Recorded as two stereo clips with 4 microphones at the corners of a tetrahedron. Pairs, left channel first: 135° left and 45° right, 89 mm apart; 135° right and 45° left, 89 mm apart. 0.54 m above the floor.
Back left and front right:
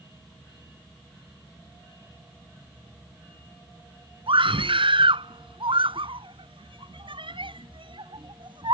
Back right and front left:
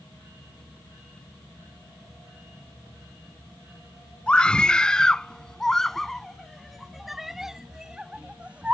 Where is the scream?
55° right; by 8.7 s 30° right.